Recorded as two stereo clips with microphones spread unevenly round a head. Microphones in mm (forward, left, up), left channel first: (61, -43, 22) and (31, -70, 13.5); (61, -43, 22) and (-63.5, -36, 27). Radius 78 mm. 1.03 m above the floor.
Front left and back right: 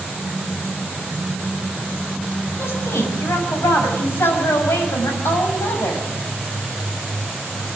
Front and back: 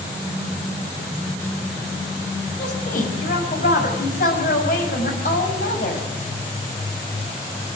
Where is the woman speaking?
35° left, 6.5 m.